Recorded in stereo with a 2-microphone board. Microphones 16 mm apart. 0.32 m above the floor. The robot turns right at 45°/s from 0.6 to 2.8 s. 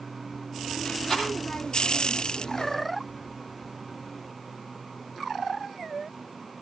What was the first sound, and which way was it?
A rattle, 40° left (ahead or behind).